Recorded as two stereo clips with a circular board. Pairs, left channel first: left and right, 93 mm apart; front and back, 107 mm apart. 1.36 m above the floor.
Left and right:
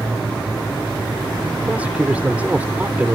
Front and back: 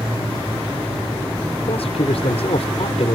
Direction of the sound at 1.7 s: 15° right.